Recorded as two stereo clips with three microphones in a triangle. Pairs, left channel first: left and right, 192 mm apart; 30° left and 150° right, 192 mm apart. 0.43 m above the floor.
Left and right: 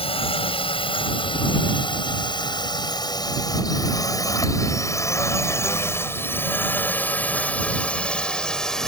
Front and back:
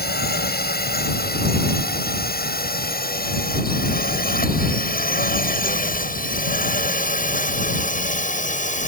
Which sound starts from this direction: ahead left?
A drone, at 0.0 s.